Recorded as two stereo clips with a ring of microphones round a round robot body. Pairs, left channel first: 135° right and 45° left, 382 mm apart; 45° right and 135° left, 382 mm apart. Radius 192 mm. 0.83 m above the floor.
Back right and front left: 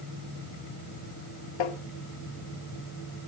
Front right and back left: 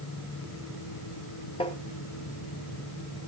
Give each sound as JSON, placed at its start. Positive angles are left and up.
{"t": 1.6, "sound": "tapping", "azimuth_deg": -120, "distance_m": 1.0}